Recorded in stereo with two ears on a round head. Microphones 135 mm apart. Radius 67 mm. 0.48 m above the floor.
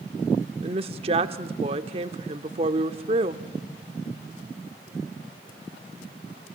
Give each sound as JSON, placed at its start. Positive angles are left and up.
{"t": 0.6, "sound": "a woman speaking", "side_deg": -40, "distance_m": 0.9}